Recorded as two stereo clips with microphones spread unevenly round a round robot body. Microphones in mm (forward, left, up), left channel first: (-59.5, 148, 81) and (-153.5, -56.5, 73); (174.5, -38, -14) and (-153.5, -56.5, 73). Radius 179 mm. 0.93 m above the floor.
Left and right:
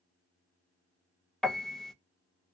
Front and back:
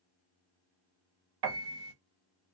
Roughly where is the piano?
Behind left.